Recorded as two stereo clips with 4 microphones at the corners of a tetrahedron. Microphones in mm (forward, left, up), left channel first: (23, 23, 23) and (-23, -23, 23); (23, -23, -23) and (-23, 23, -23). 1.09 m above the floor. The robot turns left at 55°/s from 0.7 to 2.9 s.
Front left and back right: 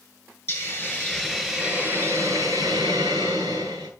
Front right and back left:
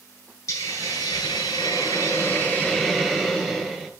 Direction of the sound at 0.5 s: 5° right.